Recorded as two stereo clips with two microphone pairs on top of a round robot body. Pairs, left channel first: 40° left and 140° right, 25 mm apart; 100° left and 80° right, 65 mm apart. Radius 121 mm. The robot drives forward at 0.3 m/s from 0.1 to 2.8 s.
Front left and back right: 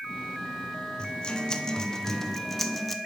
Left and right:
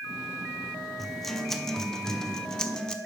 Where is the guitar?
35° left, 0.9 m; by 3.0 s 125° left, 0.8 m.